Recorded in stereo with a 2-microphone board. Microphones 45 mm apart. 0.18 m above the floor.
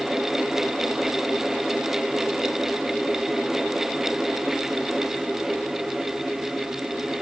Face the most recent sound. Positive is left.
No sound to turn to.